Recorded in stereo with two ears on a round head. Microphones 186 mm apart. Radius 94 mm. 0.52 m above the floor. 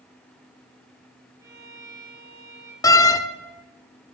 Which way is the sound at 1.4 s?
15° right (ahead or behind).